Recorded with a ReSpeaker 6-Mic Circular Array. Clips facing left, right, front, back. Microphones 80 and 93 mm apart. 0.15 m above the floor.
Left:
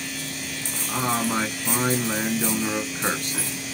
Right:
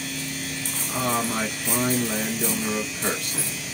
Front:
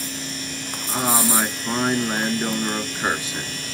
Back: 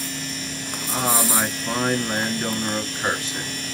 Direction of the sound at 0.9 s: 70° left.